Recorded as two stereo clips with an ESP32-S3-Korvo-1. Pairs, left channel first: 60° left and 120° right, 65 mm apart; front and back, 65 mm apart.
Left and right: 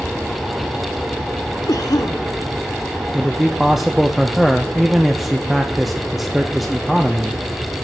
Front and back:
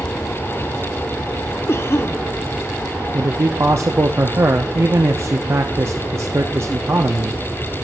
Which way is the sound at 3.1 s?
155° left.